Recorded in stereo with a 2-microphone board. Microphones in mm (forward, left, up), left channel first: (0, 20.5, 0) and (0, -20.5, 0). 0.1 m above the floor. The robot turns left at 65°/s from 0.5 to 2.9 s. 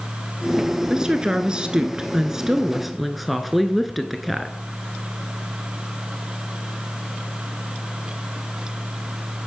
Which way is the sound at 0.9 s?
15° right (ahead or behind).